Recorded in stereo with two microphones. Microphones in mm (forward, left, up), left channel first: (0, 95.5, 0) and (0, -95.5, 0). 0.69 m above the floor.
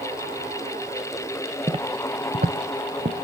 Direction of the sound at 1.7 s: 30° right (ahead or behind).